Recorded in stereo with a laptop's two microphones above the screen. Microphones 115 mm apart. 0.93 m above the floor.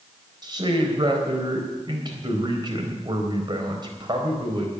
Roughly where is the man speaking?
Right.